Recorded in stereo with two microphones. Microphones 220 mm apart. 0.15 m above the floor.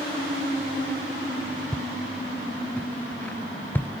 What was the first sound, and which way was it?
Footsteps, 5° left (ahead or behind).